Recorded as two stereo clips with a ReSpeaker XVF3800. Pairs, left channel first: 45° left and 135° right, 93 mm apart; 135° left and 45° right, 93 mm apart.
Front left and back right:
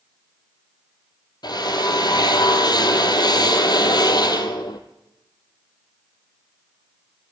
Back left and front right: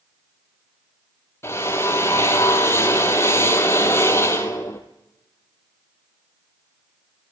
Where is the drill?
75° left, 1.5 m.